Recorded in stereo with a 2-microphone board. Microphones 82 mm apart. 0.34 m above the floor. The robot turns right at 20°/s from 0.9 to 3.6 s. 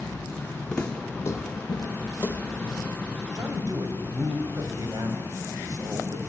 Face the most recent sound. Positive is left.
turn(degrees=-50)  # may be behind; listen again after turning